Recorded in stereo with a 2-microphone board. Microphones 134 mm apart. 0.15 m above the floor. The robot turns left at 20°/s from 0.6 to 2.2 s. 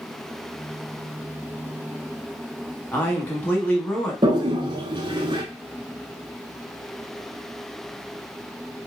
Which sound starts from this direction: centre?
A man speaking, at 2.9 s.